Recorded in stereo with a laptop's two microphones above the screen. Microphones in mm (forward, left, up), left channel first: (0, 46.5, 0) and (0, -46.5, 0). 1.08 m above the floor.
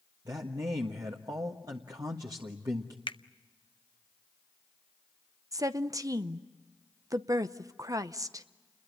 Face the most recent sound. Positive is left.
turn(degrees=-40)  # may be behind; listen again after turning